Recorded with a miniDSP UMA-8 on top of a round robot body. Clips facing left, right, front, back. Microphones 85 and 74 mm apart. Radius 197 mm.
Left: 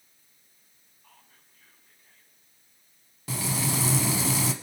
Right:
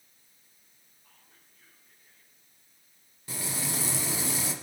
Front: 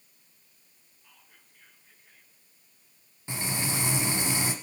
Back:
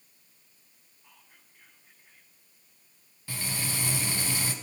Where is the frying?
70° left, 0.8 m.